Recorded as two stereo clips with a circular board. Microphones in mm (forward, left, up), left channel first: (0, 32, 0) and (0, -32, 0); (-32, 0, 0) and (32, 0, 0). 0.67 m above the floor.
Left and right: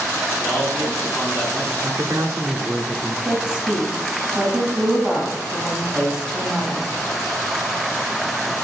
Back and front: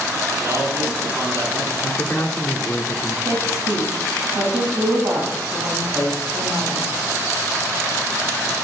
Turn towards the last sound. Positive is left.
turn(degrees=-15)